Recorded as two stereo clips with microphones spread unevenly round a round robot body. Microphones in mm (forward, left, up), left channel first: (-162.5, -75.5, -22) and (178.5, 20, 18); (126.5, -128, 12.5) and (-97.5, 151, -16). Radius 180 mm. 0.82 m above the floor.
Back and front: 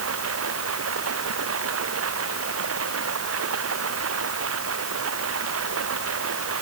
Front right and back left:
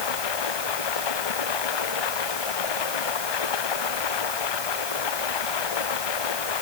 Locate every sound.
0.0 s running water: 35° right